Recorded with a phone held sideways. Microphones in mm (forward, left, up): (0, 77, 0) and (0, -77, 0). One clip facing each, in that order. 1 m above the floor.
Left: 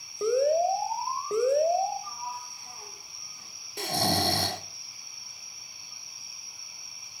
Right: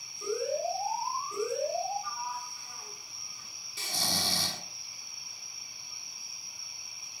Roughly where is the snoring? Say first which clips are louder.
Left 10 dB; left.